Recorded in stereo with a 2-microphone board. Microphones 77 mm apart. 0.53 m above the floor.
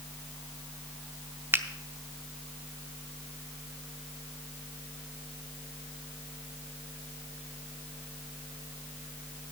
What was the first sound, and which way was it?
A finger snap, 30° right (ahead or behind).